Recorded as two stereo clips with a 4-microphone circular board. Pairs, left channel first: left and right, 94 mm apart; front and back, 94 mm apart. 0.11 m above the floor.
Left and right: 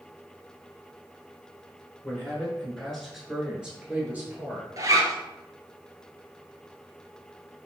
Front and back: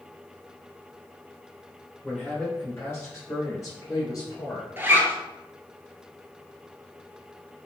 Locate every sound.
2.0 s a man speaking: 60° left, 1.2 m; by 4.7 s 30° right, 1.8 m
4.8 s a zipper: 125° right, 0.6 m